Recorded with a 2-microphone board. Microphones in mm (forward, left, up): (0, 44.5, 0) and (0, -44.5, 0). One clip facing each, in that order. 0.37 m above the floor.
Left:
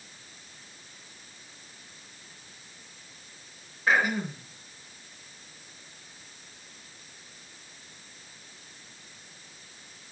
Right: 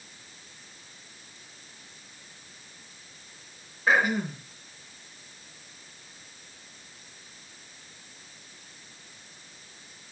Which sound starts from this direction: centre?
Throat clearing, at 3.9 s.